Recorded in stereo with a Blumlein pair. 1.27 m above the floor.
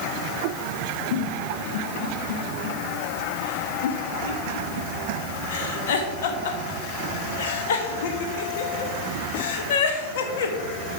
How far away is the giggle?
About 1.4 m.